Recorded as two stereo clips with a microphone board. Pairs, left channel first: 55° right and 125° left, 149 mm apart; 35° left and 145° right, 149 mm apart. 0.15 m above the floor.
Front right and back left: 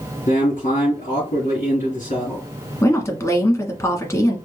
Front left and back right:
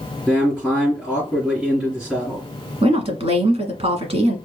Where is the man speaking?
65° right, 3 m.